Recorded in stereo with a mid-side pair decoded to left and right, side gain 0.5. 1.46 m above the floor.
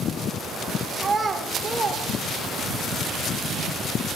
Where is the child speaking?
20° right, 1.9 m.